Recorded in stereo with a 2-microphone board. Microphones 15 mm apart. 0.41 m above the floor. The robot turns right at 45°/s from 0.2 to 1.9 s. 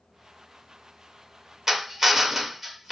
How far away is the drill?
About 0.8 m.